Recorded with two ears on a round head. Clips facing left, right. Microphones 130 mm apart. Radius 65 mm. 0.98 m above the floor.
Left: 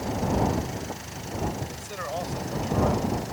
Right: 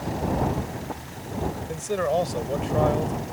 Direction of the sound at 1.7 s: 55° right (ahead or behind).